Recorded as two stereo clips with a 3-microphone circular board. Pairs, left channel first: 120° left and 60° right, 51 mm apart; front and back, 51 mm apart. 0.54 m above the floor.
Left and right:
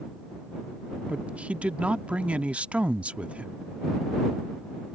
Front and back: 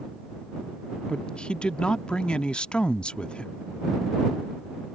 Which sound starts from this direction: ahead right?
A woman speaking, at 1.1 s.